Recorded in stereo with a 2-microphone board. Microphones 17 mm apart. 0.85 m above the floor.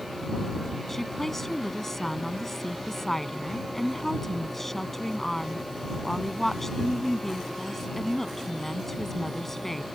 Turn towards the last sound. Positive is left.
turn(degrees=15)  # may be behind; listen again after turning